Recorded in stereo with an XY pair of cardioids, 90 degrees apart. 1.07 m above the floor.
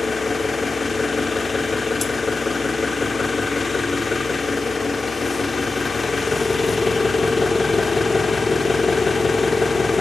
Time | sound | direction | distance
0.0 | an engine running | 40° left | 1.4 m